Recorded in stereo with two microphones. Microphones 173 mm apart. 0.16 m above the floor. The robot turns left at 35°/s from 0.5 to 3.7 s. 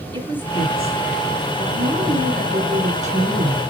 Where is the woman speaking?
35° right, 2 m; by 3.6 s 140° right, 2 m.